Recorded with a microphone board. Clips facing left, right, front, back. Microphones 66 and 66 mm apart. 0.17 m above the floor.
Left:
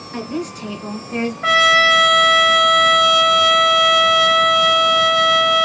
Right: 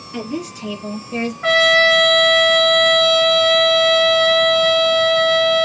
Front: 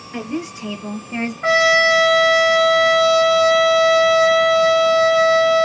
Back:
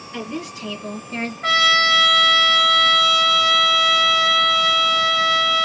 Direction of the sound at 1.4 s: 10° left.